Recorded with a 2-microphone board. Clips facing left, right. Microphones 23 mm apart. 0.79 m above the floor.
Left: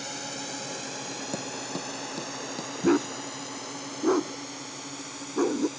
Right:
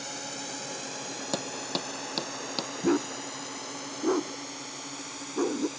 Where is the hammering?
65° right (ahead or behind).